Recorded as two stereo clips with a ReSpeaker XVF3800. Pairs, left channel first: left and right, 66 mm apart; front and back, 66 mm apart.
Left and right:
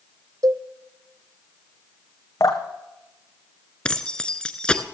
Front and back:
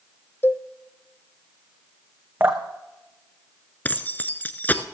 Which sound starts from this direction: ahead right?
A cowbell, at 0.4 s.